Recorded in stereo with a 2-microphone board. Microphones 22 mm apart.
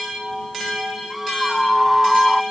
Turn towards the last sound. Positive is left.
turn(degrees=-5)  # may be behind; listen again after turning